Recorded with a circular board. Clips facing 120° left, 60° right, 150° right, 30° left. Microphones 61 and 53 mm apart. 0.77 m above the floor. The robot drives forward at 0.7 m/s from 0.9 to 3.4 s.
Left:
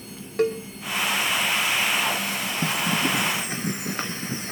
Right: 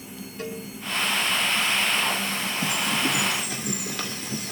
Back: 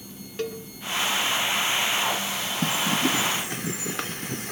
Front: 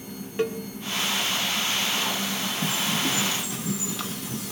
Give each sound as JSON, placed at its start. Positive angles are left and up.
{"t": 0.4, "sound": "a cowbell", "azimuth_deg": 100, "distance_m": 2.5}
{"t": 2.6, "sound": "a bird", "azimuth_deg": 175, "distance_m": 1.8}